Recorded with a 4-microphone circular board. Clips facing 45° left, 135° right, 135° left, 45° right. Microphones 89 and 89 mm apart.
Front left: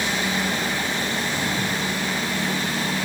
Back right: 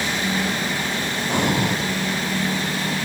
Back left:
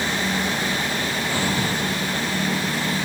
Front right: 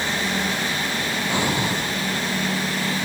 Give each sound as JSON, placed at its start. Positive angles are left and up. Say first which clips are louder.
{"t": 1.3, "sound": "breathing", "louder": "back right 4 dB, front right 2 dB", "azimuth_deg": -115}